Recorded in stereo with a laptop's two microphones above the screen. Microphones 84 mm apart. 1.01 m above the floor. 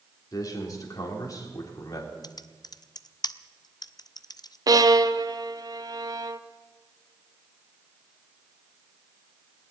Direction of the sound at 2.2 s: 50° left (ahead or behind).